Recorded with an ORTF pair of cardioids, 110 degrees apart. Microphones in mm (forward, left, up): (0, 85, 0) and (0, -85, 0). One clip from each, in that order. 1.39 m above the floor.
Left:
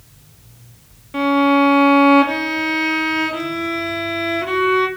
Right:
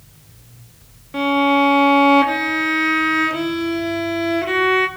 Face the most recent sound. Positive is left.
turn(degrees=0)